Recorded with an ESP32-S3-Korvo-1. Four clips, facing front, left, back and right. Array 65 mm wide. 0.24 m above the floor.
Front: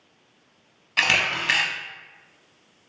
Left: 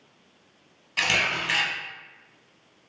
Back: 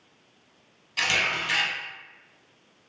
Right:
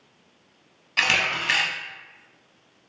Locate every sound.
1.0 s a camera shutter: 20° right, 0.5 m